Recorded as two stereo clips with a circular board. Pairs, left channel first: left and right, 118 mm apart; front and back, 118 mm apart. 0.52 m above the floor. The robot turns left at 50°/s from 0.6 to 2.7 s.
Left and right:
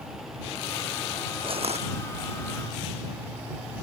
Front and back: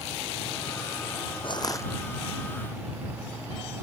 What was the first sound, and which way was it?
Crushing, 45° right.